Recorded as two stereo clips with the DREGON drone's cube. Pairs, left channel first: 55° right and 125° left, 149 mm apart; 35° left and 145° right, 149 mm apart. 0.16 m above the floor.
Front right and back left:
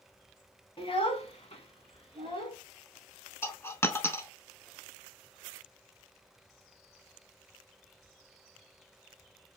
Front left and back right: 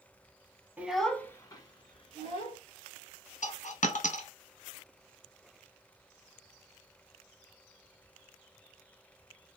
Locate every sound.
0.8 s a child speaking: 75° right, 0.8 m; by 2.6 s 5° right, 1.8 m
3.4 s a dropped coin: 15° left, 0.6 m